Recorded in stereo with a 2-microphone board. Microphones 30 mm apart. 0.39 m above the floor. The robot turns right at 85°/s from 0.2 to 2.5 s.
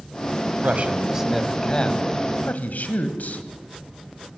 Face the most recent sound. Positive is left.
turn(degrees=90)